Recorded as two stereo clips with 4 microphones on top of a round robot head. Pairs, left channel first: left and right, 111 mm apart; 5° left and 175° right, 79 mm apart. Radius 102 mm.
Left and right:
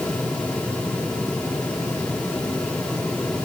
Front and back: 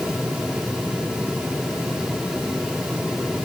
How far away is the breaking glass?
No breaking glass in this recording.